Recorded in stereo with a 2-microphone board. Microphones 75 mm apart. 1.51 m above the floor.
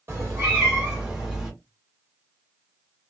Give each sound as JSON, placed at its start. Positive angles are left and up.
{"t": 0.1, "sound": "a cat meowing", "side_deg": -35, "distance_m": 1.5}